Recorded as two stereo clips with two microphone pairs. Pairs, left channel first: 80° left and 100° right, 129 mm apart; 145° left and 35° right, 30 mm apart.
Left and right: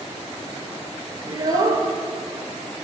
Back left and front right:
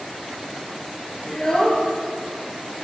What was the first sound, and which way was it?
A child speaking, 155° right.